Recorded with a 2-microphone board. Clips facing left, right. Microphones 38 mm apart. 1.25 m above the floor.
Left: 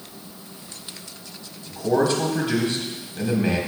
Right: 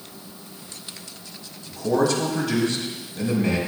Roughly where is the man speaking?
Left.